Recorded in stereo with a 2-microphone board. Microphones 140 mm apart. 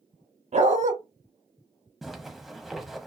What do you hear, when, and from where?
0.5 s a dog barking: 60° right (ahead or behind), 0.7 m
2.0 s a zipper: centre (ahead or behind), 0.6 m